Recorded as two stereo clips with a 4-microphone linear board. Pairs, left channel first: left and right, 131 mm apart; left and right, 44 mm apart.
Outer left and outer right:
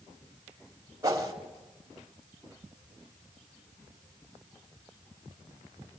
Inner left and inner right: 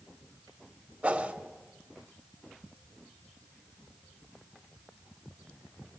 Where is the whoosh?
25° right (ahead or behind), 2.5 m.